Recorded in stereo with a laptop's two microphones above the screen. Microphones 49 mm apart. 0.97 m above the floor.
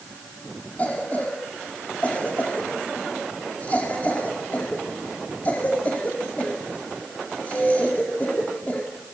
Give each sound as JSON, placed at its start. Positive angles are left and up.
{"t": 0.8, "sound": "a cough", "side_deg": 35, "distance_m": 2.0}